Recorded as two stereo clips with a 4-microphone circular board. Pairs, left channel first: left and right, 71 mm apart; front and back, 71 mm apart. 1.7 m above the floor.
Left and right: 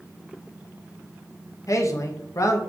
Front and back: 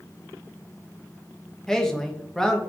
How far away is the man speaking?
About 0.5 m.